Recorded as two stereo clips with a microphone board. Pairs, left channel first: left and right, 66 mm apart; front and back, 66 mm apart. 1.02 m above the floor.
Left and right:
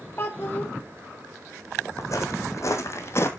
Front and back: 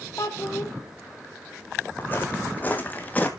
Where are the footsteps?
60° left, 2.5 m.